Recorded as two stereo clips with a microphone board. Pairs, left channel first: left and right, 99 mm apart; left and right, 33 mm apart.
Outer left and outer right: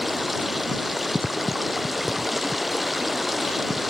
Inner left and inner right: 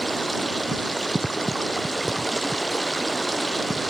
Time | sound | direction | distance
0.0 | running water | centre (ahead or behind) | ?